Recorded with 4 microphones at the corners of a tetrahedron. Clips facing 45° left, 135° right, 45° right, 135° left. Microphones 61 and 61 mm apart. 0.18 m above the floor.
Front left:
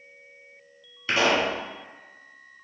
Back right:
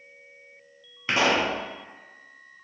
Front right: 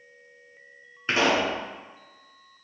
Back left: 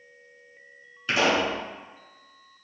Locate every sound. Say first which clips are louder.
1.1 s a pop: even, even; 85° right, 1.3 m